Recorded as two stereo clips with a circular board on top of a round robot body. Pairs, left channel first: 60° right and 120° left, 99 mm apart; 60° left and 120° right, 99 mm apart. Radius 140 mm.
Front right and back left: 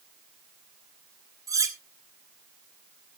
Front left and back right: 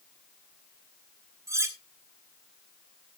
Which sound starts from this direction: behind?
Cutlery clinking, at 1.5 s.